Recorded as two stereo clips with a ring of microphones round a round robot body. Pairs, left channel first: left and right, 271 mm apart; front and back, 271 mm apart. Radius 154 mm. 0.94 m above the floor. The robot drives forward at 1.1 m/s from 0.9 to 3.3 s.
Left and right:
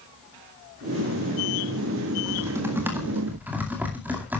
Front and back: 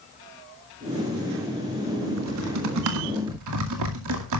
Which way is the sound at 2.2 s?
165° right.